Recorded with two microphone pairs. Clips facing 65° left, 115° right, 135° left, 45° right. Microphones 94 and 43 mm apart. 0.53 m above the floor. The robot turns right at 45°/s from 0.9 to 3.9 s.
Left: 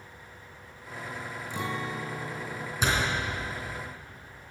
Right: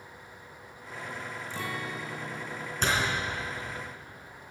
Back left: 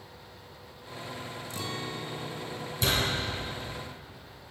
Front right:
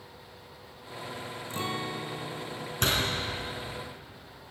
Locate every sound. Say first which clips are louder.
1.5 s a guitar: left 4 dB, front right 4 dB; 5° right, 0.5 m; by 2.7 s 50° left, 0.5 m
2.8 s a door slam: left 1 dB, even; 15° right, 3.5 m; by 3.1 s 5° right, 3.5 m